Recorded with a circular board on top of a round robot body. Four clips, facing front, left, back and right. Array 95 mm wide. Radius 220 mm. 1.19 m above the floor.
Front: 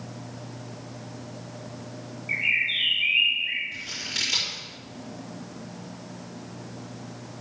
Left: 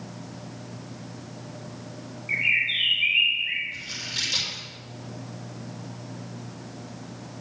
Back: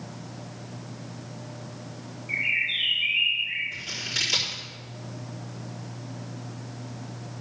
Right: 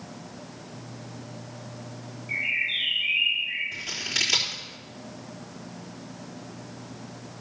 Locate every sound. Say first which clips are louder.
2.3 s a bird: left 4 dB, front 1 dB; 60° left, 1.8 m
3.7 s scissors: right 2 dB, back 1 dB; 100° right, 4 m